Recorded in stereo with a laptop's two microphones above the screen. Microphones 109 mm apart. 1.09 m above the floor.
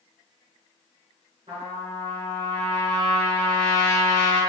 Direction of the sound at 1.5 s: 50° right (ahead or behind).